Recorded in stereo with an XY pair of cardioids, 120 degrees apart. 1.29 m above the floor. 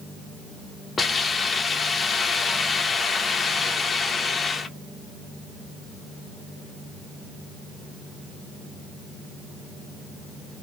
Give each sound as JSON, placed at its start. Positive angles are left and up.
{"t": 1.0, "sound": "a hiss", "azimuth_deg": 25, "distance_m": 0.7}